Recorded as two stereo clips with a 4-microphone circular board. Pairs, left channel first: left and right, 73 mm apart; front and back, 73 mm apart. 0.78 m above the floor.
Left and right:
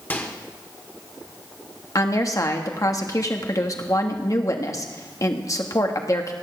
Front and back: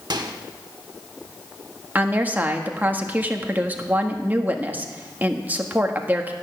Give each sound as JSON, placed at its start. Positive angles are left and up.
{"t": 0.1, "sound": "a microwave", "azimuth_deg": 155, "distance_m": 1.4}
{"t": 1.9, "sound": "a woman speaking", "azimuth_deg": 120, "distance_m": 1.4}